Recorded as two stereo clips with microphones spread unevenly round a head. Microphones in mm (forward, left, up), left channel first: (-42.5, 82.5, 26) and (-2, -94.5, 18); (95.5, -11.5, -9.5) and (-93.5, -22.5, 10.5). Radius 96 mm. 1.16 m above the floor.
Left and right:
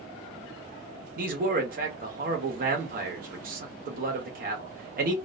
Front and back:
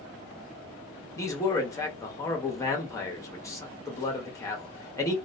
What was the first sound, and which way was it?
A man speaking, 60° right.